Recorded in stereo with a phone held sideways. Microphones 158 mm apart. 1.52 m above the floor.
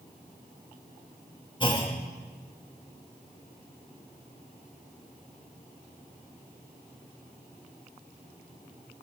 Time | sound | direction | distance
1.6 | a clunk | 30° left (ahead or behind) | 1.9 m